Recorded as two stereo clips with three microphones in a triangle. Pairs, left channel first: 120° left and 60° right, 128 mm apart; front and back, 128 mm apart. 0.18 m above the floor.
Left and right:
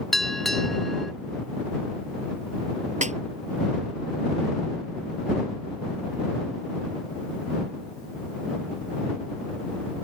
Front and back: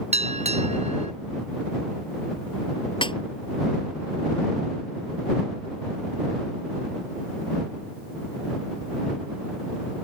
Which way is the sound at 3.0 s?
45° right.